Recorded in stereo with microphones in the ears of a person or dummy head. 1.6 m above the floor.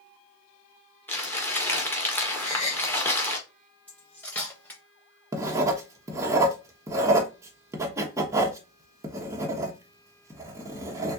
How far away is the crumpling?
About 1.3 m.